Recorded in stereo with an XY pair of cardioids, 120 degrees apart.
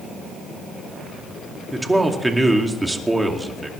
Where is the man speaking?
10° right, 2.5 m.